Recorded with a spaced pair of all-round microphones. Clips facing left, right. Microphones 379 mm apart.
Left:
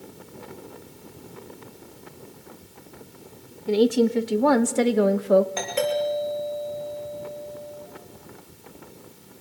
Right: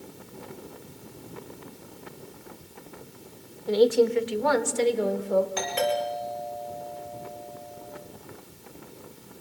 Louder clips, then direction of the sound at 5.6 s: Left 2 dB; 20° right (ahead or behind).